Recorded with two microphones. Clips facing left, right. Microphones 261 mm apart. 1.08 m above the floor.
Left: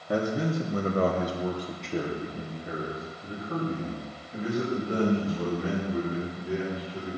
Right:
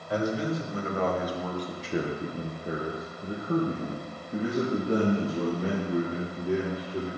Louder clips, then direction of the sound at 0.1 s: Left 1 dB; 60° left (ahead or behind).